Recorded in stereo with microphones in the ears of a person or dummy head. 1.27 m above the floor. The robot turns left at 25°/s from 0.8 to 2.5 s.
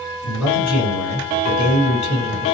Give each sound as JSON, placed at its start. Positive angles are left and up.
{"t": 0.2, "sound": "a man speaking", "azimuth_deg": 95, "distance_m": 1.7}